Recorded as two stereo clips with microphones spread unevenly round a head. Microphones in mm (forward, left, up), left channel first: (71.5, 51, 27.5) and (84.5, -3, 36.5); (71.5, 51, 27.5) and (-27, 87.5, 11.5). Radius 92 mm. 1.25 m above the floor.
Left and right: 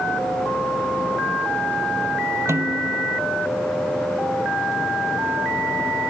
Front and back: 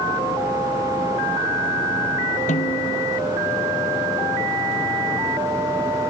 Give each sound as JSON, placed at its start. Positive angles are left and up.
{"t": 2.5, "sound": "a snare drum", "azimuth_deg": -40}